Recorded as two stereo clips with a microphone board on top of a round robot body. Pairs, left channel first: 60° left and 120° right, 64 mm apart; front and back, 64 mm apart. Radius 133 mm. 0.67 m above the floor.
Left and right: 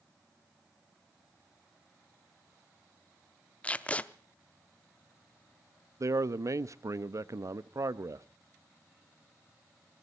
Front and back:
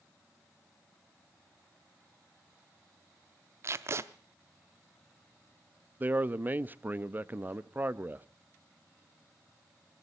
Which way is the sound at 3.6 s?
130° left.